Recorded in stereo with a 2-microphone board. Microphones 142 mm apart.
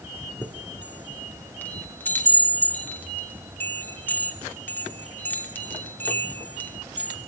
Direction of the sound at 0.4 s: 15° left (ahead or behind).